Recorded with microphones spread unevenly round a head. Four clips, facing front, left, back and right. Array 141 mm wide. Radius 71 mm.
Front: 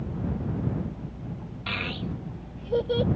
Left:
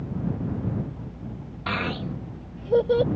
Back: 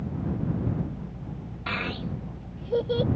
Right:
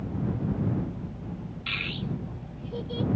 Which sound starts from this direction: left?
A child speaking, at 1.7 s.